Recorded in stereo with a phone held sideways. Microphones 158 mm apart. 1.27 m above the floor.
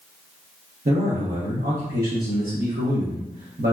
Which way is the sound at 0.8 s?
70° right (ahead or behind).